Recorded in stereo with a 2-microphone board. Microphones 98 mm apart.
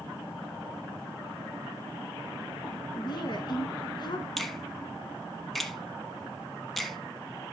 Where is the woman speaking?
50° left (ahead or behind), 1.6 m.